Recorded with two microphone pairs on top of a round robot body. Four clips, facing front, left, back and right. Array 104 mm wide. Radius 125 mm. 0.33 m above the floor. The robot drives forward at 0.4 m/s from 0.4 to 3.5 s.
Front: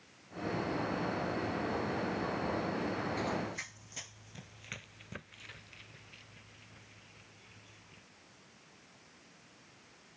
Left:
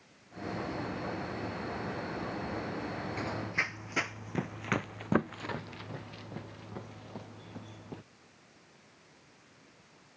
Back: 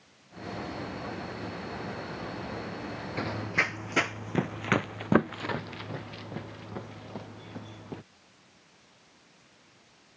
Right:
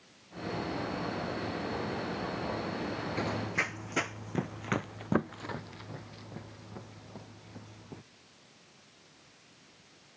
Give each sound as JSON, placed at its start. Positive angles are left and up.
{"t": 3.2, "sound": "running footsteps", "azimuth_deg": -145}